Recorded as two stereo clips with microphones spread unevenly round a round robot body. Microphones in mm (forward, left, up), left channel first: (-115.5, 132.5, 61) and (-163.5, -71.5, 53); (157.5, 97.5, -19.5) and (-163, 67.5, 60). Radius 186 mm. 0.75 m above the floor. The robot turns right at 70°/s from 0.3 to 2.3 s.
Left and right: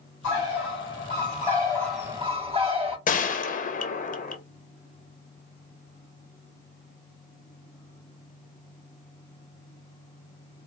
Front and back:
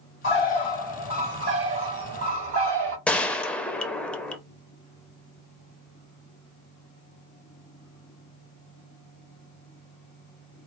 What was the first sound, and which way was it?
A bird, 55° left.